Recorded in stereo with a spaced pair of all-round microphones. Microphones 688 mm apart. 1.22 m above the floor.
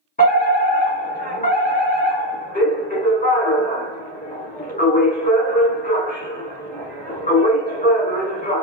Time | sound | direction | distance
0.2 | a fire alarm | 10° left (ahead or behind) | 1.6 m